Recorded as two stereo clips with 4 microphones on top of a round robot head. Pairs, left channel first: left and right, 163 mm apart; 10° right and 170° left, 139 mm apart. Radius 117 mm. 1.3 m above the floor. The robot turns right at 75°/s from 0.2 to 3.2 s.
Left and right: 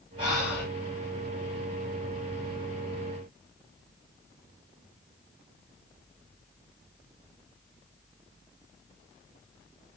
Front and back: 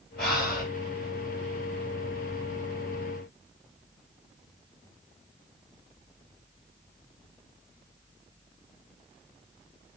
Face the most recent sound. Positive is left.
turn(degrees=-160)